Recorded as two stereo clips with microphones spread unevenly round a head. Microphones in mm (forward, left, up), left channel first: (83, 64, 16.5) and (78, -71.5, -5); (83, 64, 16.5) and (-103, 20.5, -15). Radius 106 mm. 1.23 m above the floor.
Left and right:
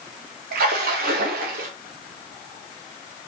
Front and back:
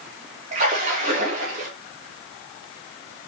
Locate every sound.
0.5 s a splash: 110° right, 1.8 m